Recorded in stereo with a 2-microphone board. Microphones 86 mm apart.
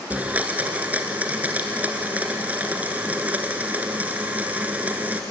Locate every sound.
0.1 s a blender: 20° right (ahead or behind), 2 m